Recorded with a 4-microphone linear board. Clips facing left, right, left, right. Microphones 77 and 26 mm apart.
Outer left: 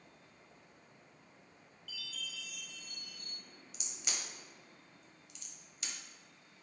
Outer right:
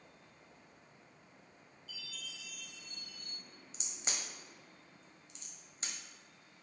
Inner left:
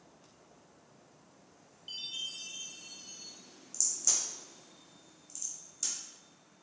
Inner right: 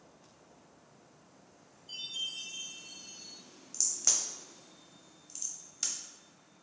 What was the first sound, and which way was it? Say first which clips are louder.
A chime: outer left 3 dB, inner right 1 dB; 80° left.